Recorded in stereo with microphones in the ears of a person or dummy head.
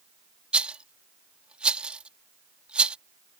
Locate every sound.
0.5 s a rattle: centre (ahead or behind)